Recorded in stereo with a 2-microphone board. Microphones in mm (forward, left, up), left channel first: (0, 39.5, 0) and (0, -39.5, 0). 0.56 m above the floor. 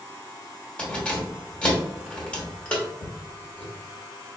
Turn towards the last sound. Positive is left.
turn(degrees=15)  # may be behind; listen again after turning